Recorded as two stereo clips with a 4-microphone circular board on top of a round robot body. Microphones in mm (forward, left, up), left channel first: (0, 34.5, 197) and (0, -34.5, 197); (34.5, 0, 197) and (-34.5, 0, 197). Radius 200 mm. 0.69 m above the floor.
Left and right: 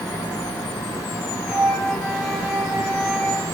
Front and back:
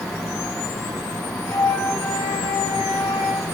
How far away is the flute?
About 3 m.